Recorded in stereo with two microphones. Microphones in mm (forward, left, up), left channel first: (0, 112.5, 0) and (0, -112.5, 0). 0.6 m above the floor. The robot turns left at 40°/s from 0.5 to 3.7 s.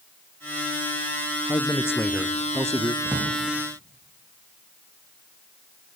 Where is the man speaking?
30° left, 0.8 m; by 3.0 s 30° right, 0.8 m.